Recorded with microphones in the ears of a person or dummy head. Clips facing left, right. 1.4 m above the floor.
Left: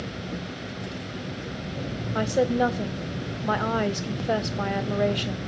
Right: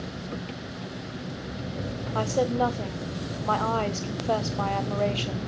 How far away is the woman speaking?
About 0.8 m.